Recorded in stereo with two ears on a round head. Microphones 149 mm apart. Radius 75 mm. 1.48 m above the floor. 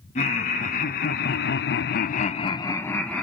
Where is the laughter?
40° left (ahead or behind), 1.3 m; by 3.2 s 5° left (ahead or behind), 0.9 m.